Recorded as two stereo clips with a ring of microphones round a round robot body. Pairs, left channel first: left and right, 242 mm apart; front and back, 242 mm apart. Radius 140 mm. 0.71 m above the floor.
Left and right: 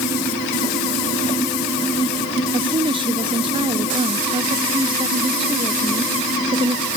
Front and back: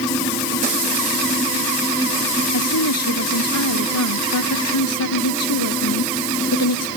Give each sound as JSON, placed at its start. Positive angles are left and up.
{"t": 2.5, "sound": "a woman speaking", "azimuth_deg": -20}